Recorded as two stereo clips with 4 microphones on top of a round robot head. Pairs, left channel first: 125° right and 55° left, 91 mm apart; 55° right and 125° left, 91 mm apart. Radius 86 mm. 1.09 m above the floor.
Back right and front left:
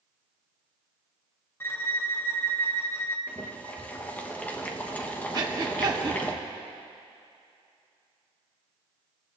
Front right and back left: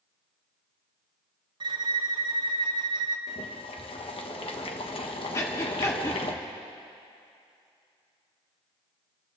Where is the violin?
165° left, 0.9 m.